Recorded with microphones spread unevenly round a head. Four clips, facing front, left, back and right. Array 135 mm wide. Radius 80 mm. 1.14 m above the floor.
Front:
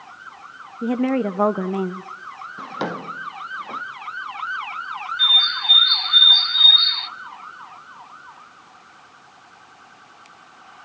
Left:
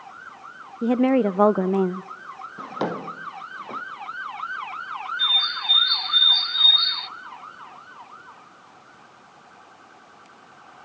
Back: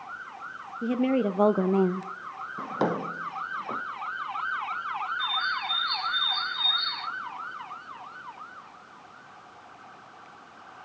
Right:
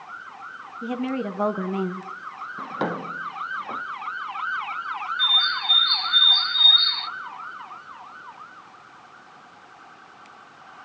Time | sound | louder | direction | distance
0.8 | a woman speaking | left 9 dB, front 4 dB | 90° left | 0.9 m
2.6 | a drawer | even, back 1 dB | 130° left | 0.6 m
5.2 | a bird | right 3 dB, front 2 dB | 5° left | 0.8 m